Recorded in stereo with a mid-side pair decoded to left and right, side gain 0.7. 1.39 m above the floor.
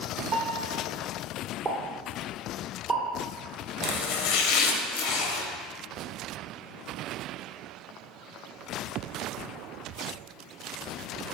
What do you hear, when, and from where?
0.3 s a piano: 35° right, 0.9 m
1.6 s a pop: 30° right, 0.8 m
3.8 s chopping: 60° left, 0.5 m